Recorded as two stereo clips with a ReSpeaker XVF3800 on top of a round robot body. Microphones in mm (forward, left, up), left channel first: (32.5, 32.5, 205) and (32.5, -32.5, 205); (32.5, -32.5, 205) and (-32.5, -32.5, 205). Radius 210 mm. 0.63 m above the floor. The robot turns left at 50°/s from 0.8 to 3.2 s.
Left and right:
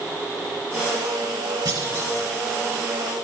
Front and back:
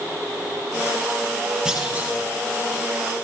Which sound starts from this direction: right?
A clunk, at 1.6 s.